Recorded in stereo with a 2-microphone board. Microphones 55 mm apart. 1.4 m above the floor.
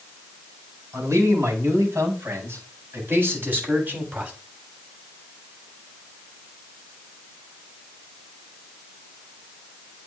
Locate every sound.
0.9 s a man speaking: 65° right (ahead or behind), 4.5 m; by 4.3 s 30° right (ahead or behind), 3 m